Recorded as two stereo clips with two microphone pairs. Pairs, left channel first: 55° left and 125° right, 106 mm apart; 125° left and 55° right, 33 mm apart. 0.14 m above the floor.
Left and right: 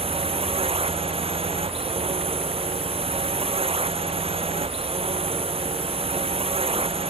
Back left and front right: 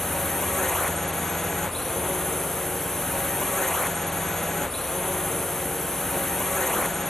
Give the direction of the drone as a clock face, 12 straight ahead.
5 o'clock.